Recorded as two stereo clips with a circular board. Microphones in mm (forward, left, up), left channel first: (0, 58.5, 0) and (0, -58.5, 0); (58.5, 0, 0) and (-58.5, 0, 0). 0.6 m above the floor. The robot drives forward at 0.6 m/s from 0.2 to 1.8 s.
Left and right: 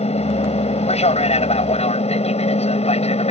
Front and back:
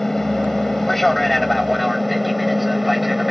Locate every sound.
0.0 s an aircraft: 85° left; by 3.3 s 90° left